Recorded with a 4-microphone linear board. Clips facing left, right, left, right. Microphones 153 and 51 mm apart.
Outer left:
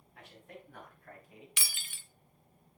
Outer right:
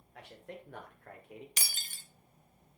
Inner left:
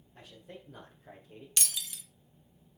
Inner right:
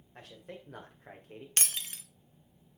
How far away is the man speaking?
About 2.5 m.